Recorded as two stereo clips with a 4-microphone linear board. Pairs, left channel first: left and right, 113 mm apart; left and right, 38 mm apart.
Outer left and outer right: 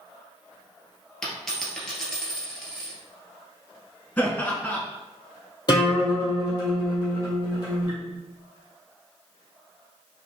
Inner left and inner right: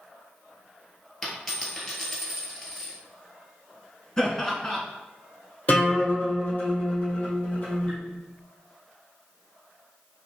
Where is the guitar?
40° left (ahead or behind), 1.9 m.